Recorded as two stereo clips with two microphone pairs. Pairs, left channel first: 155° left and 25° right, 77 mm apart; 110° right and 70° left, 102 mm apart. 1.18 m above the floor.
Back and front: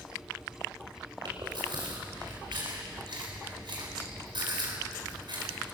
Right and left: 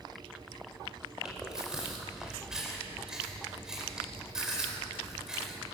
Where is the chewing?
15° right, 5 m.